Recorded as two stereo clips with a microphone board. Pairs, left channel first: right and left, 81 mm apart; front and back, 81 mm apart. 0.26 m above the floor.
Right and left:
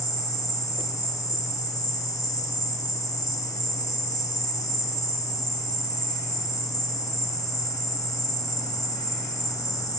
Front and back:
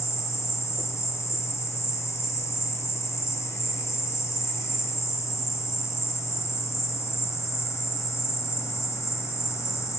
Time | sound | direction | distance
0.0 | an insect | 50° right | 0.8 m